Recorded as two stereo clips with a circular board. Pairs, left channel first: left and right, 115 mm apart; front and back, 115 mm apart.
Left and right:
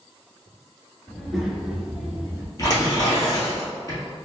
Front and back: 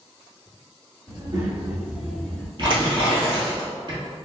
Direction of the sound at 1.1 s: 175° left.